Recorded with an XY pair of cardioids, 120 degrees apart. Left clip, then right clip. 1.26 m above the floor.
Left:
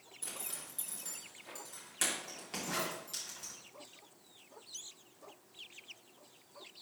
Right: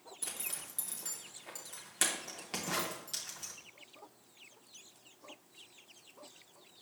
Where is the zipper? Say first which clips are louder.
Right 2 dB; 30° right, 2 m.